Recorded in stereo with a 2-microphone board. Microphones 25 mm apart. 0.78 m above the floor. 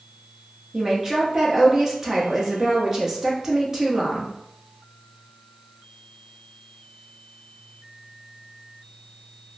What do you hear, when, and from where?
0.7 s a woman speaking: 20° right (ahead or behind), 0.7 m